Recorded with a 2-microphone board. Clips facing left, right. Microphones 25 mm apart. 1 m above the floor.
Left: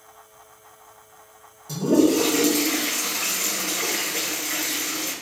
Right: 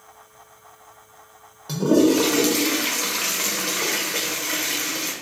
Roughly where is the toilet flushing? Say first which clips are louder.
Right 1 dB; right.